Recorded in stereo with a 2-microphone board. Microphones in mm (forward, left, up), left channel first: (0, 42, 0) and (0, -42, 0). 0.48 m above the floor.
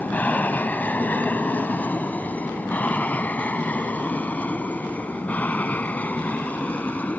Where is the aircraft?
20° left (ahead or behind).